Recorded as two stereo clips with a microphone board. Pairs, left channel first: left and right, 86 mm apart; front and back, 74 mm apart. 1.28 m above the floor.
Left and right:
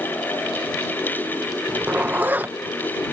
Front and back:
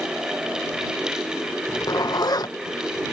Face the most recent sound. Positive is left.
turn(degrees=-25)